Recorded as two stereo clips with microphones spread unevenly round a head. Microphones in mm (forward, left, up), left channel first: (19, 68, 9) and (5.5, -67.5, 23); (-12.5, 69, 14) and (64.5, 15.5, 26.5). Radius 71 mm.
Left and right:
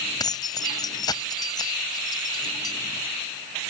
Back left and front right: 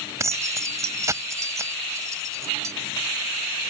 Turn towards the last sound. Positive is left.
turn(degrees=20)